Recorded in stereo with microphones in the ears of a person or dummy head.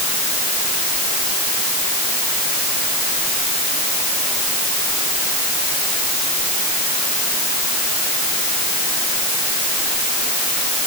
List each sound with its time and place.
Only background noise.